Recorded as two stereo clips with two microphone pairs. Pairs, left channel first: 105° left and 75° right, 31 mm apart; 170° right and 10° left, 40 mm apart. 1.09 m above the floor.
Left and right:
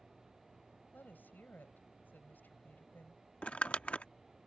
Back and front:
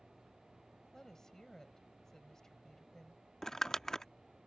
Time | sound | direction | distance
0.9 | a woman speaking | 110° left | ?
3.4 | crumpling | 115° left | ?